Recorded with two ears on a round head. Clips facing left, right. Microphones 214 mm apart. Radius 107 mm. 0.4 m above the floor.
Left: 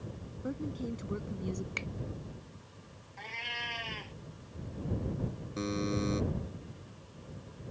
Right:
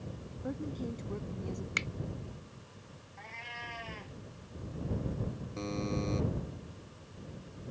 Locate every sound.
0.4 s a woman speaking: 5° left (ahead or behind); by 1.7 s 25° left (ahead or behind)
1.8 s a finger snap: 25° right (ahead or behind)
3.2 s a cat meowing: 50° left (ahead or behind)
5.6 s a buzzer: 25° left (ahead or behind)